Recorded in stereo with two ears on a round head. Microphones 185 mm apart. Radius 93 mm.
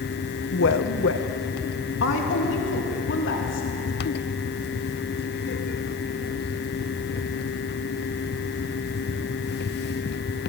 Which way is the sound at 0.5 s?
65° left (ahead or behind).